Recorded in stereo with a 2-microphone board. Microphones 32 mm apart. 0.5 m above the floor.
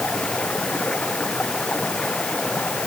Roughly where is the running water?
Left.